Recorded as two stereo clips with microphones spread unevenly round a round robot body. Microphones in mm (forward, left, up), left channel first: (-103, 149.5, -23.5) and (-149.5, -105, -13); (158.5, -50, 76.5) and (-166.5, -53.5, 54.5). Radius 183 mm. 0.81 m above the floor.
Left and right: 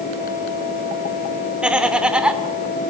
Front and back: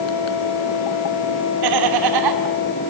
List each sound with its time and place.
1.6 s laughter: 175° left, 2 m